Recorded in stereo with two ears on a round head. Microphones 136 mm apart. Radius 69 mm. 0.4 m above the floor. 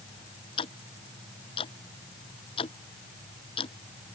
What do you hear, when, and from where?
0.6 s ticking: 40° left (ahead or behind)